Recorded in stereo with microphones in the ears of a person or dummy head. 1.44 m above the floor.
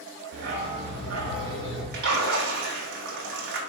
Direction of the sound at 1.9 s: 55° right (ahead or behind).